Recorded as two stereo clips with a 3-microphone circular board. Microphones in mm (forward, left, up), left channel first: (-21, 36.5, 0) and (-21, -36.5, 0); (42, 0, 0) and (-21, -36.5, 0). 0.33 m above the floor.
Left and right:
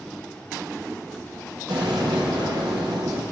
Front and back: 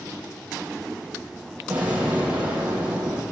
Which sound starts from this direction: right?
An explosion, at 1.7 s.